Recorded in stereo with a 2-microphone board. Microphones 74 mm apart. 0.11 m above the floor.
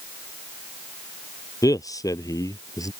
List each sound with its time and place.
1.6 s a man speaking: 60° left (ahead or behind); by 2.9 s 55° left (ahead or behind)